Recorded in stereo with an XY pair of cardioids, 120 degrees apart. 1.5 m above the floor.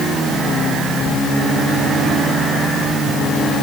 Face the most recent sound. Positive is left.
No sound to turn to.